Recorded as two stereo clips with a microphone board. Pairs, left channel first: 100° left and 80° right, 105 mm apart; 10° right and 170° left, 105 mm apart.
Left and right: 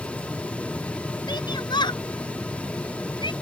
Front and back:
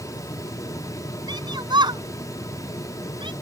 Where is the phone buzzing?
No phone buzzing in this recording.